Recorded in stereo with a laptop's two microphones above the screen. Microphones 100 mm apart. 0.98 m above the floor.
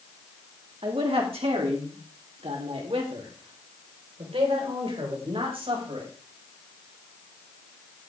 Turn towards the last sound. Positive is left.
turn(degrees=-65)  # may be behind; listen again after turning